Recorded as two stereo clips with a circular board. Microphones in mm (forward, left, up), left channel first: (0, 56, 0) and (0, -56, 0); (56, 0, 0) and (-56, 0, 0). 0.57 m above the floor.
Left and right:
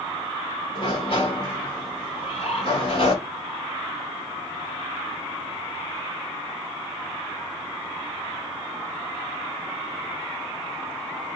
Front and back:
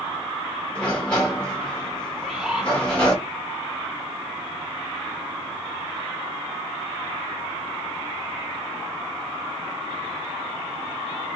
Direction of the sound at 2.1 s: 95° left.